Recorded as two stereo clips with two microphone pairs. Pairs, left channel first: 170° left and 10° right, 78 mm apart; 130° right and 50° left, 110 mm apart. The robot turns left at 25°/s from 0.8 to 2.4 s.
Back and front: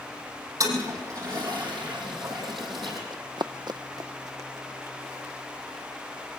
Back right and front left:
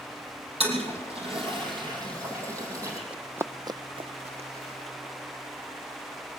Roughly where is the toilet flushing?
Ahead left.